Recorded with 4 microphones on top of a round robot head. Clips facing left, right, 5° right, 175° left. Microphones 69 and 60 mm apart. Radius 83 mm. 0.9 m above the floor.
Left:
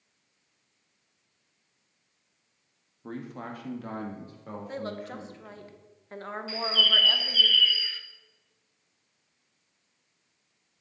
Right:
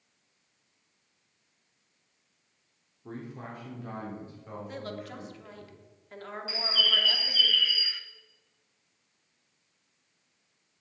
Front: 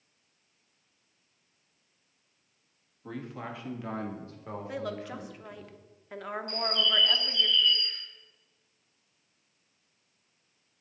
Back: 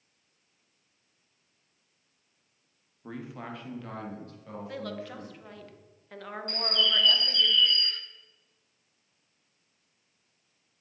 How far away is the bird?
About 0.6 m.